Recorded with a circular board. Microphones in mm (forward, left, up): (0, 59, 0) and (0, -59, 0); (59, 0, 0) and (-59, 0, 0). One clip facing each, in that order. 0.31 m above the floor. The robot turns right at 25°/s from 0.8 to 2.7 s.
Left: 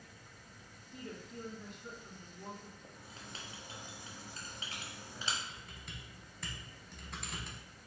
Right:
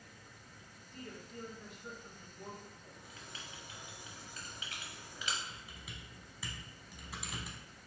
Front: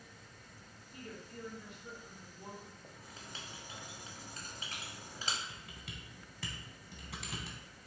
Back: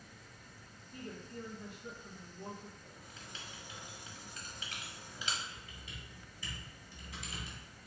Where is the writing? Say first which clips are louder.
Left 1 dB, front 1 dB; 40° left, 0.9 m.